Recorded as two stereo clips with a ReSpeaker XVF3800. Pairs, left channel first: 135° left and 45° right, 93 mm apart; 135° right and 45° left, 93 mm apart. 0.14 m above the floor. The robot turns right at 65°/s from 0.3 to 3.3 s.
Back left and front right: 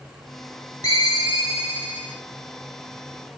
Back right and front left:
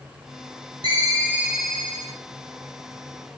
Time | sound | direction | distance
0.8 | a ringtone | 85° left | 3 m